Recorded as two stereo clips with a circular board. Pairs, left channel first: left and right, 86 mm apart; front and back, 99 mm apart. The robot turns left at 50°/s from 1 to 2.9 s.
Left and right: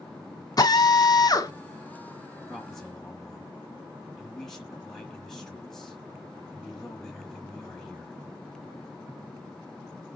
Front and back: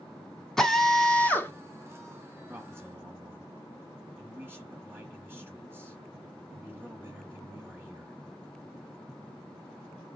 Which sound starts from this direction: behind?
A man speaking, at 2.5 s.